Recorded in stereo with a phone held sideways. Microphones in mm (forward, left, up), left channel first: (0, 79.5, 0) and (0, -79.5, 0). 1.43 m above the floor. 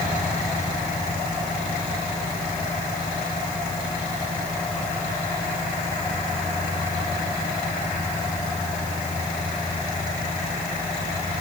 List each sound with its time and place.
Only background noise.